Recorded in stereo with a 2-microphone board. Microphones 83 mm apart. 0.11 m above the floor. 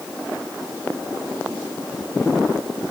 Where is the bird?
I don't hear a bird.